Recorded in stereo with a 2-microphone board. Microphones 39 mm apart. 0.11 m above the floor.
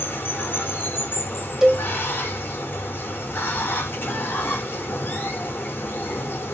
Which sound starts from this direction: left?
Running water, at 0.0 s.